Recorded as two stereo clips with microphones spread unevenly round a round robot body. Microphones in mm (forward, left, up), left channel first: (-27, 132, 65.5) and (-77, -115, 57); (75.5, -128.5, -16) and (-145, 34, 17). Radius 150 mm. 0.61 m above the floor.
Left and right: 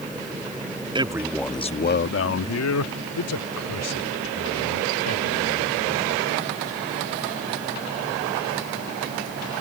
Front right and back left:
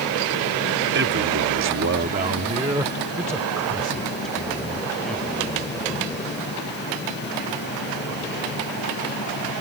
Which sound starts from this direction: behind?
A man speaking, at 0.9 s.